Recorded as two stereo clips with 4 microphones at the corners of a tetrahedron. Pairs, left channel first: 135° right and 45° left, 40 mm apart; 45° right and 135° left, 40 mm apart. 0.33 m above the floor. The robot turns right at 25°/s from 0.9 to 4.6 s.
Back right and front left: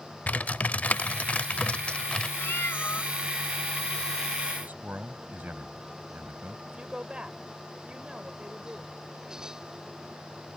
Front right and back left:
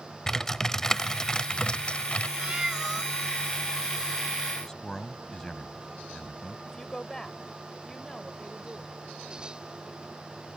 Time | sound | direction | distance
0.3 | typing on a keyboard | 115° right | ?
2.4 | a cat meowing | 165° right | ?
4.6 | a man speaking | 25° left | ?
6.7 | a woman speaking | 15° left | ?